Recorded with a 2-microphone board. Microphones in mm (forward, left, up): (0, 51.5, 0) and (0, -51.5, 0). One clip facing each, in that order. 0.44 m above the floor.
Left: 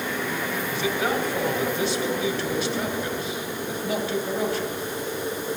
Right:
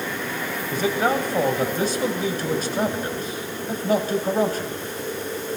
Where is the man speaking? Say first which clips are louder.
Right 5 dB; 40° right (ahead or behind), 2.5 m.